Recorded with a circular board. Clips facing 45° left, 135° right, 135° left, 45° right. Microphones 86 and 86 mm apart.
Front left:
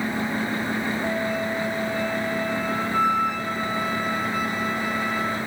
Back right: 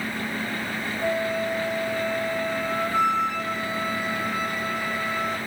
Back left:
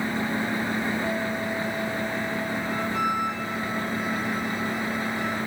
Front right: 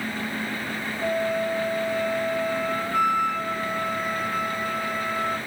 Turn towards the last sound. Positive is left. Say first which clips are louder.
# even, front right 3 dB
turn(degrees=-70)